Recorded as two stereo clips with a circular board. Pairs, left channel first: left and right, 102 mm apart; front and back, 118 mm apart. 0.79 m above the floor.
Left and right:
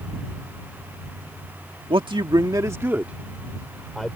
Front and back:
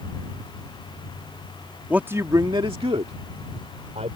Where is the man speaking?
105° right; by 4.2 s 175° left.